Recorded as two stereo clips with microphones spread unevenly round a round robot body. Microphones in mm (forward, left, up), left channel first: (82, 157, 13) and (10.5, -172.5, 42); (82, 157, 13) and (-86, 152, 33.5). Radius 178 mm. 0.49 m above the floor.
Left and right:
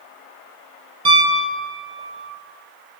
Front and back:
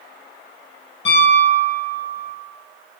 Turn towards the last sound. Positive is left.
turn(degrees=-30)